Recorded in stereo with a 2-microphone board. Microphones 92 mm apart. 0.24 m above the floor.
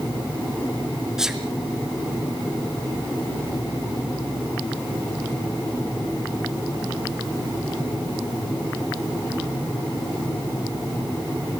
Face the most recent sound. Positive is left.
turn(degrees=-5)  # may be behind; listen again after turning